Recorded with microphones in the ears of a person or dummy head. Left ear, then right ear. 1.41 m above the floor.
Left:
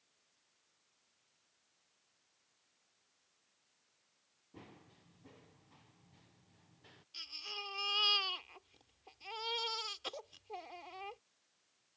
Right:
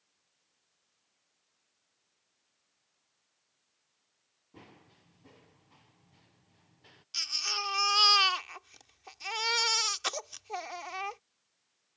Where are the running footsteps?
15° right (ahead or behind); by 7.0 s 10° right (ahead or behind).